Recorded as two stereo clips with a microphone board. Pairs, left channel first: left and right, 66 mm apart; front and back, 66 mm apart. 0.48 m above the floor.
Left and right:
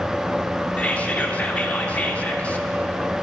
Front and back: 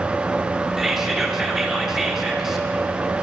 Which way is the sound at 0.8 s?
100° left.